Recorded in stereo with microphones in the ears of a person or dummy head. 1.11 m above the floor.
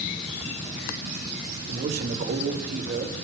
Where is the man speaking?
50° right (ahead or behind), 4 m.